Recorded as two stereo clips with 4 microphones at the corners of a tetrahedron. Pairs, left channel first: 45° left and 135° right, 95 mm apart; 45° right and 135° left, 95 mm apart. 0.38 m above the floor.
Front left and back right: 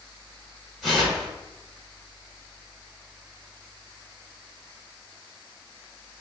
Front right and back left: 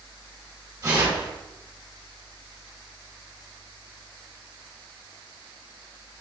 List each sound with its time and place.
0.8 s tearing paper: 140° left, 1.2 m